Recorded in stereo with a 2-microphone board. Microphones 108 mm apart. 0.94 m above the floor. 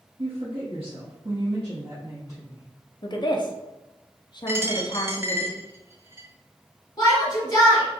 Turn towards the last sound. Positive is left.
turn(degrees=40)  # may be behind; listen again after turning